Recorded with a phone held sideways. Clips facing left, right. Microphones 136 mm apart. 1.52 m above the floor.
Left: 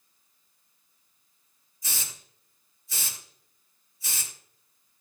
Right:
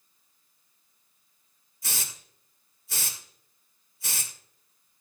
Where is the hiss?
75° right (ahead or behind), 2.5 m.